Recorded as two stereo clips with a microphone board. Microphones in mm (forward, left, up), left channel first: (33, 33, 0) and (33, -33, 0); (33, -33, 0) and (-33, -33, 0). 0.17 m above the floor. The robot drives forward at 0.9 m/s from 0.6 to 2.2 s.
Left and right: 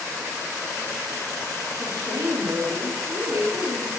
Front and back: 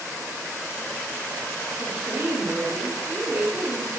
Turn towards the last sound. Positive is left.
turn(degrees=-120)